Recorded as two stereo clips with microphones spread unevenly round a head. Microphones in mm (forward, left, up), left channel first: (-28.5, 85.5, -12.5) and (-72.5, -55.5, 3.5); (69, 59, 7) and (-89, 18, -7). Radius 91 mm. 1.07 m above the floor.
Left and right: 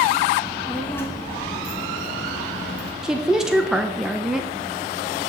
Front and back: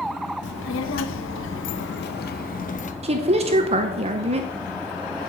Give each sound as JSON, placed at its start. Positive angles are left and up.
{"t": 0.4, "sound": "a child speaking", "azimuth_deg": -20, "distance_m": 1.0}
{"t": 3.0, "sound": "a woman speaking", "azimuth_deg": 160, "distance_m": 0.7}